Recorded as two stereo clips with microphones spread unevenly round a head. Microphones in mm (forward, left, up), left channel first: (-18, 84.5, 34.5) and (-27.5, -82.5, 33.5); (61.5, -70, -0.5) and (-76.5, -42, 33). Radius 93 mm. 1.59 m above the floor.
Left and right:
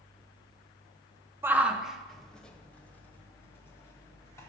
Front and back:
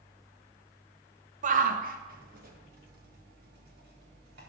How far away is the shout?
About 1.1 m.